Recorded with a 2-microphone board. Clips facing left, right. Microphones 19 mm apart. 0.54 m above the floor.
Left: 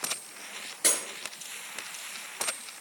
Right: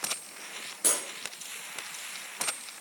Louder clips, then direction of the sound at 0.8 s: Left 2 dB; 85° left.